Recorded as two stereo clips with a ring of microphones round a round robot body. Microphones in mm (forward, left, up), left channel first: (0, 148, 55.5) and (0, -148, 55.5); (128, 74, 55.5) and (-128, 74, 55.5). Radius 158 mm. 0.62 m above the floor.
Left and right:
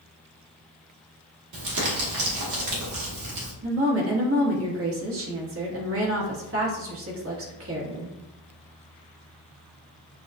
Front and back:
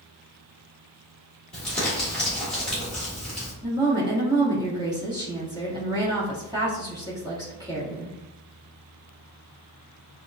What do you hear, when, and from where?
1.5 s crumpling: 85° right, 1.5 m
3.6 s a woman speaking: 110° right, 1.4 m